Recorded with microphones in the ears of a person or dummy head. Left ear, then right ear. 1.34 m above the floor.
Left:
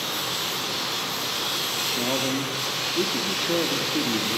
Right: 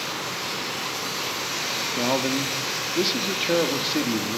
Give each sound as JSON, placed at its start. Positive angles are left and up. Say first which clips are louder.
{"t": 2.0, "sound": "a man speaking", "louder": "right 1 dB", "side_deg": -35, "distance_m": 2.0}